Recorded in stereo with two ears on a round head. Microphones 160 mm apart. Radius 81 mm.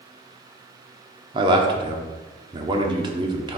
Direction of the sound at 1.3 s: 25° right (ahead or behind).